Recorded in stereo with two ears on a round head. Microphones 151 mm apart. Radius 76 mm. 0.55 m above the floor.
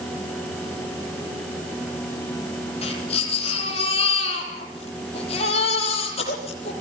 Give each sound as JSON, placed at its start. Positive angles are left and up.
{"t": 2.8, "sound": "a baby crying", "side_deg": 40, "distance_m": 9.5}